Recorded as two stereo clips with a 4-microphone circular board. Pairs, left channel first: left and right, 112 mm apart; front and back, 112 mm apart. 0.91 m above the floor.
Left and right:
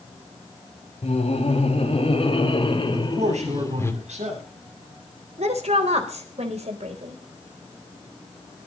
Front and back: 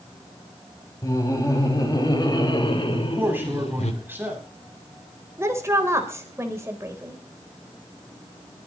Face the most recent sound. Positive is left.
turn(degrees=-115)